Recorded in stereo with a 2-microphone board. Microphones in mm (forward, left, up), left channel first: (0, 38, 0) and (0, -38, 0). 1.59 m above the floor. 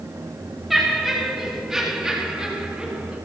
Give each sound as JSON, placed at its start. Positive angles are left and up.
{"t": 0.7, "sound": "laughter", "side_deg": 0, "distance_m": 4.5}